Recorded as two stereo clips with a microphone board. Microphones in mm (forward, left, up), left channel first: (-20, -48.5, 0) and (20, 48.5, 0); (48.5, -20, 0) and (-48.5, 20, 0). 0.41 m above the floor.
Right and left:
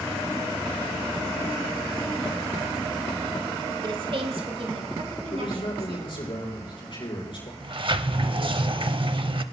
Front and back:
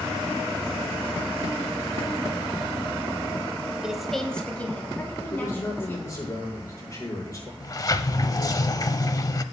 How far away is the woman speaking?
About 1.0 m.